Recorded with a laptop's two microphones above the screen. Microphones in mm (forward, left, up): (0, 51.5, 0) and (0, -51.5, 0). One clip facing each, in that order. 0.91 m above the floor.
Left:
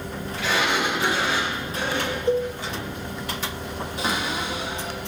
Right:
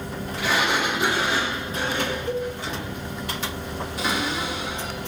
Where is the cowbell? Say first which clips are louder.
Left 9 dB; 25° left (ahead or behind), 0.6 m.